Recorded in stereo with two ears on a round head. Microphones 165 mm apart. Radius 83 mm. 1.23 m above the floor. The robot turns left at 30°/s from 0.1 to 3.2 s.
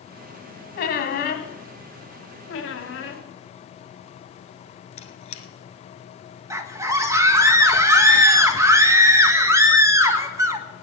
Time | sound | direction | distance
0.8 | a squeak | 55° left (ahead or behind) | 1.7 m
2.5 | a squeak | 80° left | 1.8 m
5.0 | a squeak | 35° left (ahead or behind) | 1.6 m
6.5 | a scream | 15° right (ahead or behind) | 1.5 m